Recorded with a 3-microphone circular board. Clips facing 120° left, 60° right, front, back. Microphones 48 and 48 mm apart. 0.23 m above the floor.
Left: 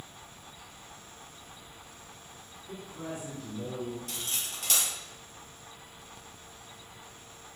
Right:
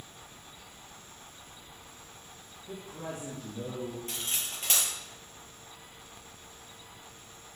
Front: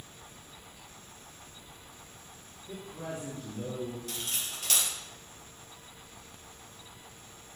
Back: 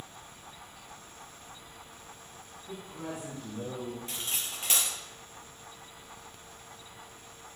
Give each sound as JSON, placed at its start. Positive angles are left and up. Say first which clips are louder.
{"t": 2.7, "sound": "a man speaking", "louder": "even, even", "azimuth_deg": -100, "distance_m": 4.0}
{"t": 4.1, "sound": "cutlery clinking", "louder": "right 1 dB, even", "azimuth_deg": -115, "distance_m": 3.0}